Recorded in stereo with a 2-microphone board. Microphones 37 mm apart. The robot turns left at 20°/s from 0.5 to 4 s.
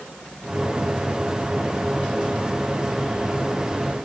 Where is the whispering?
No whispering in this recording.